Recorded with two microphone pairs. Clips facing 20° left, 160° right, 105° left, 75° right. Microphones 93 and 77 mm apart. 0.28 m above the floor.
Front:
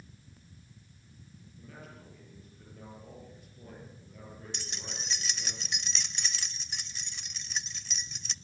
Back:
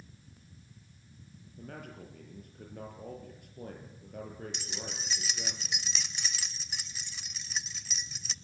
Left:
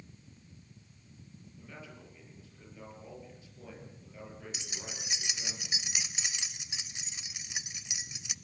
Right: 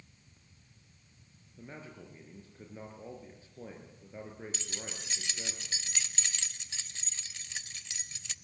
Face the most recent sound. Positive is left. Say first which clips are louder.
# back 2 dB, right 1 dB
turn(degrees=120)